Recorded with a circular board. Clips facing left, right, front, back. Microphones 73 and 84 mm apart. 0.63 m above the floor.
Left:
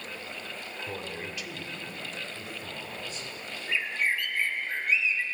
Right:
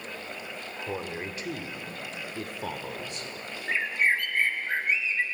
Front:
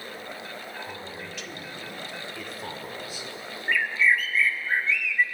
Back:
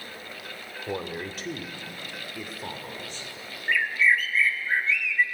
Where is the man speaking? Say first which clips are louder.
Right 5 dB, back 6 dB; 160° right, 1.9 m; by 3.3 s 75° right, 2.5 m.